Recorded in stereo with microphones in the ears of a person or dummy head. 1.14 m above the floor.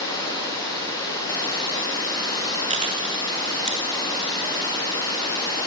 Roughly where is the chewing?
Right.